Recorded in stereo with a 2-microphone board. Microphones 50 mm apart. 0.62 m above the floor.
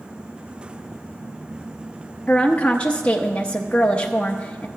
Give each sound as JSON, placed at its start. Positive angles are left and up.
{"t": 2.3, "sound": "a woman speaking", "side_deg": 25, "distance_m": 0.6}